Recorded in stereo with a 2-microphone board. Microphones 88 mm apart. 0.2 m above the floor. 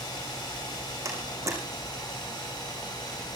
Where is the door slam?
35° right (ahead or behind), 8 m.